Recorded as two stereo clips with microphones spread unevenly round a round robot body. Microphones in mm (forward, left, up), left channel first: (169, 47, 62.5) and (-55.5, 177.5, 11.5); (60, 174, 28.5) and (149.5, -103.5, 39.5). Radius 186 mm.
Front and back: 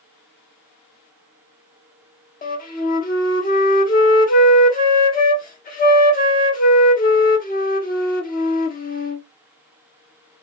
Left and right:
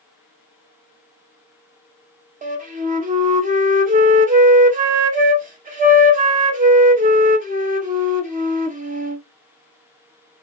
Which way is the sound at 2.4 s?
65° right.